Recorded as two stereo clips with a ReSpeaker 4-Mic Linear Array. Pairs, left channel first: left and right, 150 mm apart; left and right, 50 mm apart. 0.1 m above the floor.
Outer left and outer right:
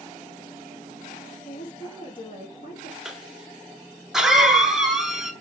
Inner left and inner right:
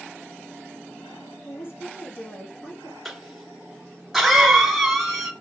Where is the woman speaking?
65° left (ahead or behind), 2.5 m.